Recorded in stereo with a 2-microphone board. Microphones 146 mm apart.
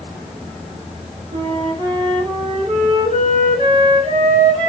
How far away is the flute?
About 1.0 m.